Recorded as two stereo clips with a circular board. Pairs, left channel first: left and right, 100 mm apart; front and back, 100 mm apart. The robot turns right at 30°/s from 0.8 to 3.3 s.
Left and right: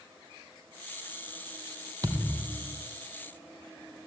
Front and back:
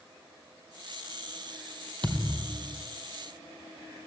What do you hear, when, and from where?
2.0 s a thud: 140° right, 2.5 m; by 2.8 s 120° right, 2.5 m